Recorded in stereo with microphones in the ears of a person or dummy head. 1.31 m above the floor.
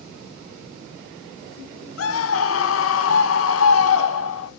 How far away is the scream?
About 1.0 m.